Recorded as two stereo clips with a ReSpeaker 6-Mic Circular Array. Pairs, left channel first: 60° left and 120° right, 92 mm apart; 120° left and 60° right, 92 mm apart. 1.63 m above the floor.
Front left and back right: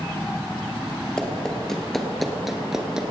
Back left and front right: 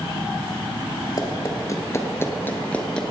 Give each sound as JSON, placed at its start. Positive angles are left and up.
{"t": 1.2, "sound": "running footsteps", "azimuth_deg": 140, "distance_m": 2.0}